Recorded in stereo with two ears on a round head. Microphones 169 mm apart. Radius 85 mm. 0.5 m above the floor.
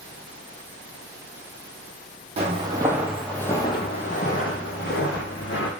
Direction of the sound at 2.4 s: 35° right (ahead or behind).